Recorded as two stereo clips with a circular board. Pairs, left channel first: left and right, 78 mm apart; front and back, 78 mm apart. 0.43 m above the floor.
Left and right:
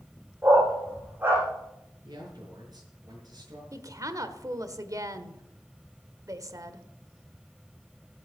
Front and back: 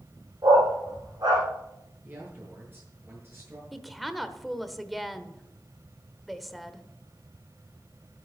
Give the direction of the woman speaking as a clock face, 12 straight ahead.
3 o'clock.